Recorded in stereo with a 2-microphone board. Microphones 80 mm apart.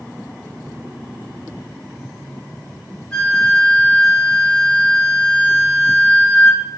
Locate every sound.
3.1 s a flute: 10° left (ahead or behind), 1.4 m